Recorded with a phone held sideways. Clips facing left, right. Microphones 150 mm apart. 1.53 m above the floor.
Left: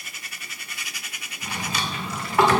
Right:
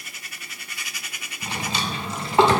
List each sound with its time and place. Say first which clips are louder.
1.4 s a drawer: right 1 dB; 25° right (ahead or behind), 1.4 m